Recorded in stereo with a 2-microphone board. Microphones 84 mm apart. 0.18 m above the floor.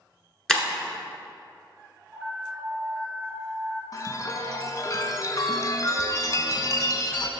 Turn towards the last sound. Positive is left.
turn(degrees=45)  # may be behind; listen again after turning